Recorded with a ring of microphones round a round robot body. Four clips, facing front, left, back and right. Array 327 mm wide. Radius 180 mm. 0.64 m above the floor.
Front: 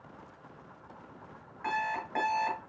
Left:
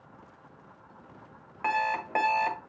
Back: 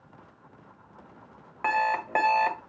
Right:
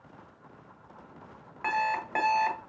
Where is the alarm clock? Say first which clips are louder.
Left 1 dB, back 7 dB; 170° left, 1.4 m.